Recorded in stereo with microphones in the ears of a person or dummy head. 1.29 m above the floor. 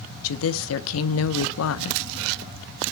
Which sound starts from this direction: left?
A woman speaking, at 0.2 s.